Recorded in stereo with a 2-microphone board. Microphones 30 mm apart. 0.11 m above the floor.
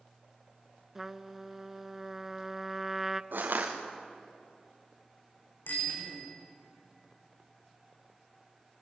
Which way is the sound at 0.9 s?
15° right (ahead or behind).